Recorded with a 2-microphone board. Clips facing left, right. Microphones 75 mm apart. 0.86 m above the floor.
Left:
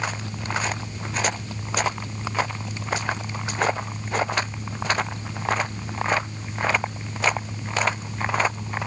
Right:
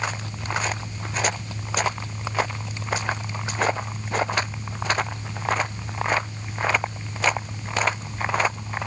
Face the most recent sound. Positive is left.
No sound to turn to.